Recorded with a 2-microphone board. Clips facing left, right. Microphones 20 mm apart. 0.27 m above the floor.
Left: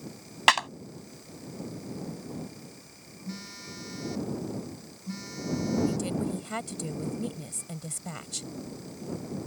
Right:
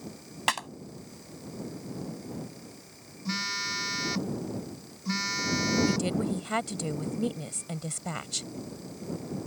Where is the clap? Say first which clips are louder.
Left 7 dB; 30° left (ahead or behind).